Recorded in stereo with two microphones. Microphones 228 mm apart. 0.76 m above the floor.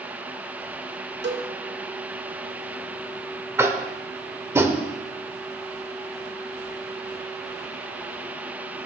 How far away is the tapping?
About 0.6 m.